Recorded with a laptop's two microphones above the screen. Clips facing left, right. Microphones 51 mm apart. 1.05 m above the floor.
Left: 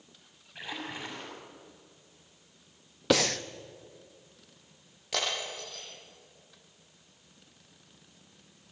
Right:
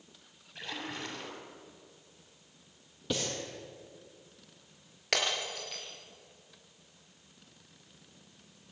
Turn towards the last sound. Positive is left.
turn(degrees=-70)  # may be behind; listen again after turning